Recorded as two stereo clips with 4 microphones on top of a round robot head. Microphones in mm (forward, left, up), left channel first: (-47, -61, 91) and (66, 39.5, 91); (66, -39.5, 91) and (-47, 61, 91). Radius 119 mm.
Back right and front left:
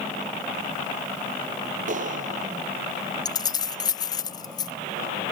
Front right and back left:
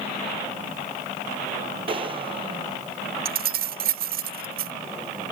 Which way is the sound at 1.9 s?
80° left.